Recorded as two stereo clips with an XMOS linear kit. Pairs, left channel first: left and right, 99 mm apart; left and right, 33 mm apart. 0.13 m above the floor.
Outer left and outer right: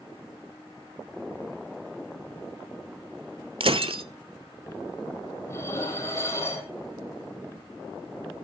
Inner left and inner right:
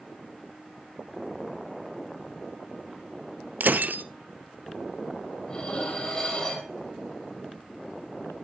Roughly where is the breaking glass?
Right.